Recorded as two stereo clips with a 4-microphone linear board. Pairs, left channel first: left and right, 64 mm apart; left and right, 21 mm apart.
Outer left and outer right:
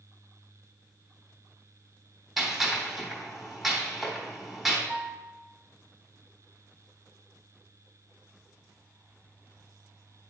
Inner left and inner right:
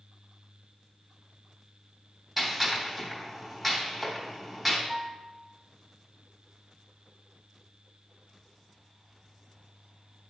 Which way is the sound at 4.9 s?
55° right (ahead or behind).